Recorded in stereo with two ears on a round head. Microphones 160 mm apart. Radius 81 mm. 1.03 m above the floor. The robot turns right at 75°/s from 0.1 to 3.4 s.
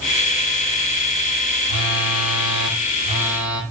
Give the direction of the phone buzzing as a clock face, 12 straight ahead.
5 o'clock.